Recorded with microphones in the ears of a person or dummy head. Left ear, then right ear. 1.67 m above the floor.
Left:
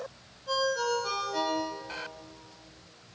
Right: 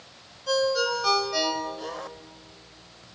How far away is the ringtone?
About 5.5 m.